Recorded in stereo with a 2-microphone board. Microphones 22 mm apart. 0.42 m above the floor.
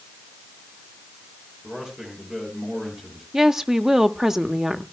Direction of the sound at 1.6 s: 25° right (ahead or behind).